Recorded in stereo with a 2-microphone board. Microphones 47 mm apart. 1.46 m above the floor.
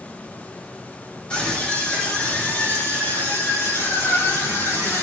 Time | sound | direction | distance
1.3 | a scream | 25° left (ahead or behind) | 6 m